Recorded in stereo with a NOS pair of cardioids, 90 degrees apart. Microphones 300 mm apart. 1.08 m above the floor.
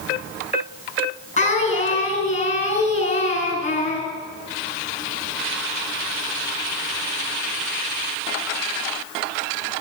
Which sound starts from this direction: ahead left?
Singing, at 1.4 s.